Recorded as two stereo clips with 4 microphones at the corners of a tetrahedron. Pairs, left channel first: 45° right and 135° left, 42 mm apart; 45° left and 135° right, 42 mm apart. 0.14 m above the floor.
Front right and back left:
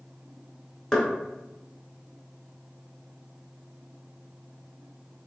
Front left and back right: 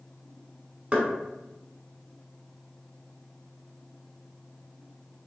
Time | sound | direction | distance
0.9 | knocking | 120° right | 0.9 m